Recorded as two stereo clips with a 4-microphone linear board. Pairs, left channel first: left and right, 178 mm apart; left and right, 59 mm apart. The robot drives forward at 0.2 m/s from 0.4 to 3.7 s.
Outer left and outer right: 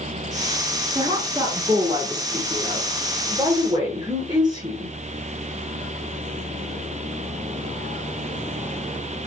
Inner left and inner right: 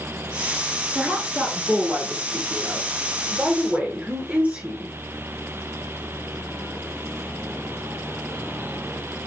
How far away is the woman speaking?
About 1.4 m.